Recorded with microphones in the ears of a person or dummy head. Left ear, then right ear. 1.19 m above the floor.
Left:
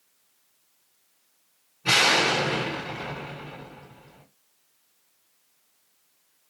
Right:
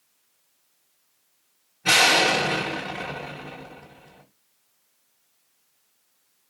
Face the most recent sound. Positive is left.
turn(degrees=-10)  # may be behind; listen again after turning